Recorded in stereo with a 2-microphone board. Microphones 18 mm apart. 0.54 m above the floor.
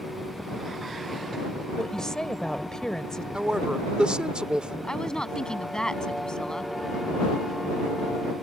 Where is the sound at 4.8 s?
40° left (ahead or behind).